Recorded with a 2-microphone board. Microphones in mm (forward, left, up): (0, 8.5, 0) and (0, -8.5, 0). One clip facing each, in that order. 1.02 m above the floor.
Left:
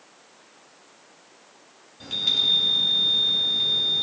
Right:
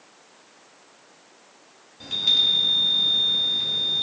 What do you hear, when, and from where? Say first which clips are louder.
2.0 s a chime: right 2 dB; 10° left (ahead or behind), 3.5 m